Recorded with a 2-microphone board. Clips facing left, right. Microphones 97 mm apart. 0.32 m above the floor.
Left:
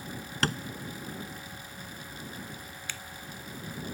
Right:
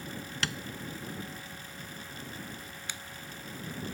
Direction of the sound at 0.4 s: 45° left (ahead or behind).